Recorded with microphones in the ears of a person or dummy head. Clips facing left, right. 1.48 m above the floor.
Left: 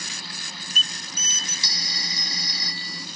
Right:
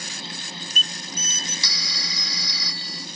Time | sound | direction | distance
1.6 | a phone ringing | 65° right (ahead or behind) | ?